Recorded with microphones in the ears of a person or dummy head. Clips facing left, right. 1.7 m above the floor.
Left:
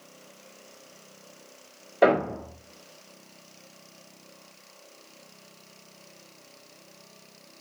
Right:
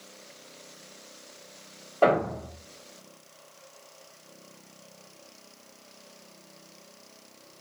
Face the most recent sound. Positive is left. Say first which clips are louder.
# left 2 dB
turn(degrees=20)  # may be behind; listen again after turning